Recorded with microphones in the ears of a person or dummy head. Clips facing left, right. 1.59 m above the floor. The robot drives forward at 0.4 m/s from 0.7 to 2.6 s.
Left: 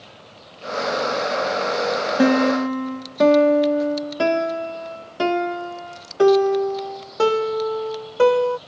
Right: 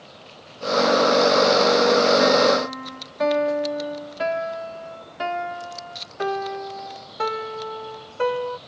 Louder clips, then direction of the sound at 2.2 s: Left 1 dB; 55° left (ahead or behind).